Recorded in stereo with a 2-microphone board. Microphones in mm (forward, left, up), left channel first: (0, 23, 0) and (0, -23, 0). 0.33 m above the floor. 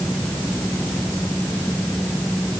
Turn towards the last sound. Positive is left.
No sound to turn to.